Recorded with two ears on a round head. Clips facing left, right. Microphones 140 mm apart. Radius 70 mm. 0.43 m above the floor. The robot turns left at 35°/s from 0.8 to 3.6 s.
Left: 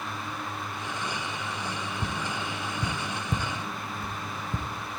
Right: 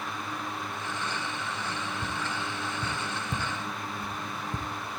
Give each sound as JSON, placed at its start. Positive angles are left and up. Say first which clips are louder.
{"t": 2.0, "sound": "tapping", "louder": "left 1 dB", "side_deg": 55, "distance_m": 0.6}